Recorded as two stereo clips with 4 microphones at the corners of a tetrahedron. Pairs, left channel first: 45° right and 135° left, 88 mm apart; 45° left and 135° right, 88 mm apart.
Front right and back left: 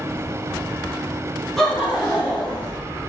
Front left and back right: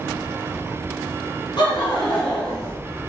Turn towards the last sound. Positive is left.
turn(degrees=80)